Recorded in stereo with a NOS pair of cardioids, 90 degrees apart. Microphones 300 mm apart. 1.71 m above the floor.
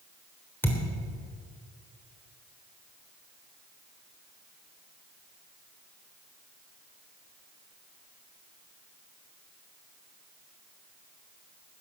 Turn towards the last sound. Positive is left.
turn(degrees=5)